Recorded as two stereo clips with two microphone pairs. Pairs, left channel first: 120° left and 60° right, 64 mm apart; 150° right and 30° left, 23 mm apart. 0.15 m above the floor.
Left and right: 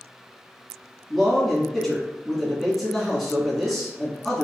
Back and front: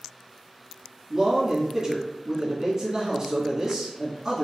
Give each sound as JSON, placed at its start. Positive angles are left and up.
{"t": 1.1, "sound": "a man speaking", "azimuth_deg": 20, "distance_m": 1.6}